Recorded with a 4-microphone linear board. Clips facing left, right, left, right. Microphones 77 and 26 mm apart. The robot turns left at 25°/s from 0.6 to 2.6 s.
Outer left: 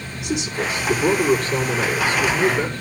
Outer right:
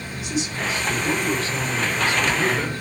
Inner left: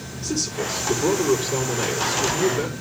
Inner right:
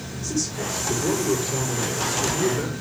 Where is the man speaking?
70° left, 4 m; by 2.7 s 20° left, 4 m.